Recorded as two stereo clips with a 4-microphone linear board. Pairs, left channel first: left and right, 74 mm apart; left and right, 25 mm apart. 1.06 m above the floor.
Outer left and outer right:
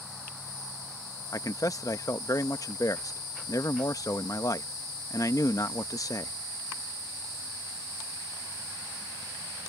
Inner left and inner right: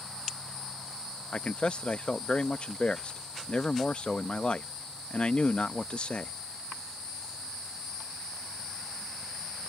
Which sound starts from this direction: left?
A man speaking, at 1.3 s.